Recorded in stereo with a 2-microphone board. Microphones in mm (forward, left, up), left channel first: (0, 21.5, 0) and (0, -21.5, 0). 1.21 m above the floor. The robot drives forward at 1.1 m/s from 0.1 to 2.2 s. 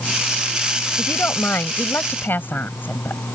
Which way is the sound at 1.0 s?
70° left (ahead or behind).